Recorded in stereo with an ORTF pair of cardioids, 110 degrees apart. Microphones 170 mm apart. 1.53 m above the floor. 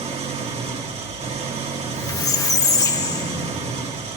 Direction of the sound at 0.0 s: 40° right.